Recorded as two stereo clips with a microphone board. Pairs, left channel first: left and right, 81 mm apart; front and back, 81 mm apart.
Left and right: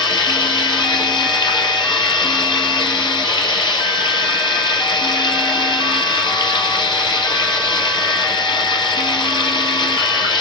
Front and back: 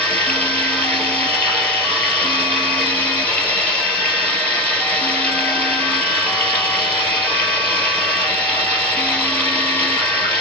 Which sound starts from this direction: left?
Running water, at 0.0 s.